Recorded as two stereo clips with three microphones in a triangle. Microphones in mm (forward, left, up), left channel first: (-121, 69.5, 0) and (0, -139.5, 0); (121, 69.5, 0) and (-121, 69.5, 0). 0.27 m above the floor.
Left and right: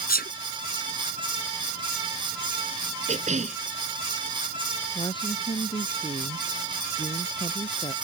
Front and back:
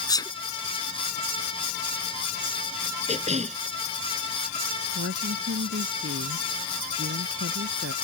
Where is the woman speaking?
170° right.